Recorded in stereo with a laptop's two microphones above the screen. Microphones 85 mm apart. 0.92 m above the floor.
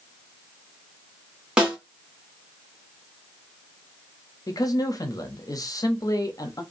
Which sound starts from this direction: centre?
A snare drum, at 1.6 s.